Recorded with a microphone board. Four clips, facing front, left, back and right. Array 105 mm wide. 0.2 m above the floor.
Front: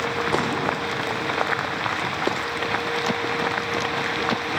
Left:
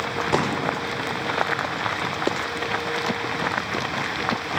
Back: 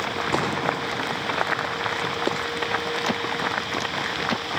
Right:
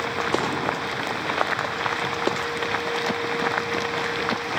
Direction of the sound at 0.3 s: 105° left.